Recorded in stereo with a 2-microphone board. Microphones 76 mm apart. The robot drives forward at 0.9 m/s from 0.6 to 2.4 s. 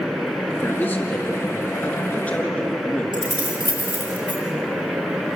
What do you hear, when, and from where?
0.5 s a man speaking: 25° left (ahead or behind), 3.5 m; by 3.0 s 20° left (ahead or behind), 5 m
3.1 s keys jangling: 80° right, 5 m